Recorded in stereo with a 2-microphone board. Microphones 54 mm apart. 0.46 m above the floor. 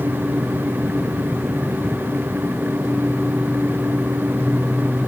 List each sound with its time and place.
Only background noise.